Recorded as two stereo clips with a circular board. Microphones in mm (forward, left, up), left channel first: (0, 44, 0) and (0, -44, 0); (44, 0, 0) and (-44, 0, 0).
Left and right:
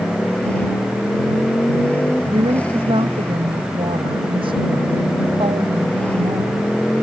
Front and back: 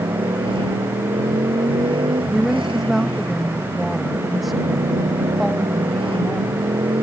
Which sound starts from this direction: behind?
A motorcycle, at 0.0 s.